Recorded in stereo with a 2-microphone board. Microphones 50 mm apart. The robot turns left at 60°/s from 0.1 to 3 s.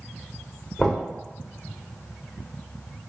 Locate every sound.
0.8 s knocking: 5° left (ahead or behind), 1.4 m; by 1.0 s 5° right (ahead or behind), 1.4 m